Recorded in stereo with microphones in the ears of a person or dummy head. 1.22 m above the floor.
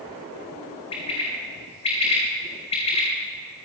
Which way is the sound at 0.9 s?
35° left (ahead or behind).